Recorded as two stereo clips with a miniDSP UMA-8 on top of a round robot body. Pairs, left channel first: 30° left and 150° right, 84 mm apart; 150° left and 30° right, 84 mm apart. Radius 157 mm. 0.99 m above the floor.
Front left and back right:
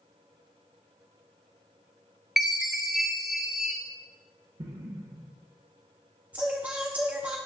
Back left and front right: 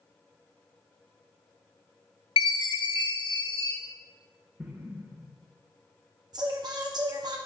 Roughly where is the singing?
Right.